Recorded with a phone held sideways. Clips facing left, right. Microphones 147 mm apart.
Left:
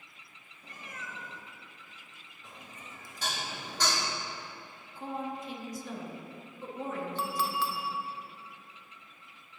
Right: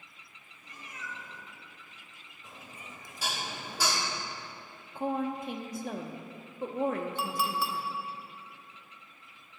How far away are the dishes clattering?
About 1.2 m.